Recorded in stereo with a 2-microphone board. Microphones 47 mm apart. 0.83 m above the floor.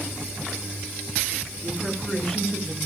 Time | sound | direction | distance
1.6 | a woman speaking | centre (ahead or behind) | 9.5 m